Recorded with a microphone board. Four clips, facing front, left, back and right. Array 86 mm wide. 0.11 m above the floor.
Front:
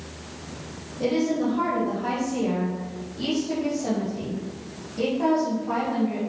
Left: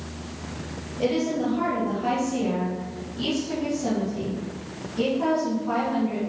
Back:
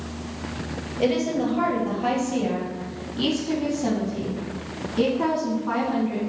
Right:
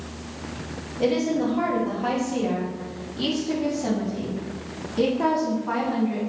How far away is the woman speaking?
About 3.5 m.